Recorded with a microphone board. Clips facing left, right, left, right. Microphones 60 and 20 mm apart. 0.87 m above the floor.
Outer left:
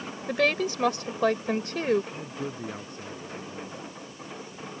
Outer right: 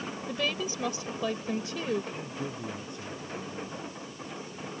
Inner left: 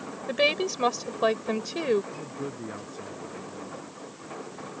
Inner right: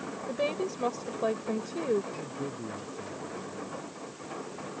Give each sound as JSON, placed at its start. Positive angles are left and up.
{"t": 0.3, "sound": "a woman speaking", "side_deg": 65}
{"t": 2.1, "sound": "a man speaking", "side_deg": 35}